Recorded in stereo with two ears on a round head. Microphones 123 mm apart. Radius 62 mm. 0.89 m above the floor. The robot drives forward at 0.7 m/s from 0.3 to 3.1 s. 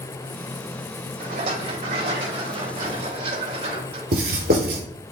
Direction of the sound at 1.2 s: 55° right (ahead or behind).